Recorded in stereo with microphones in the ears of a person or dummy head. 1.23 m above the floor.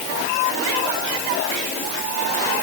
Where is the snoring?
I don't hear snoring.